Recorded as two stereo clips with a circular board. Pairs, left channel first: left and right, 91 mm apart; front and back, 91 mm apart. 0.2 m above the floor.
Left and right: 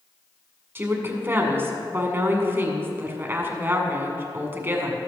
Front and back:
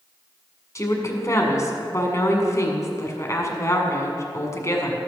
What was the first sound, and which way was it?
A woman speaking, 35° right.